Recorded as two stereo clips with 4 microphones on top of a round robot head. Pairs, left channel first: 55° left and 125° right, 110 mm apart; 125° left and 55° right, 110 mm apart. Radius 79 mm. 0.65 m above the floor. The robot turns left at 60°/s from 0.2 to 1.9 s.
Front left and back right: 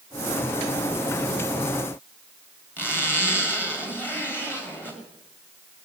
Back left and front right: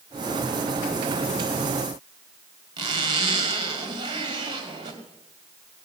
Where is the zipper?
10° right, 2 m.